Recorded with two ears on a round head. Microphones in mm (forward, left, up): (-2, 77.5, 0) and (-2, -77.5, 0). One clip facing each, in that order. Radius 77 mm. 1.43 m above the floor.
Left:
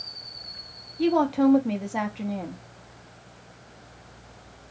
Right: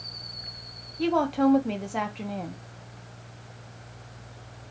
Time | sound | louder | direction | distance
1.0 | a woman speaking | left 2 dB | 5° left (ahead or behind) | 0.8 m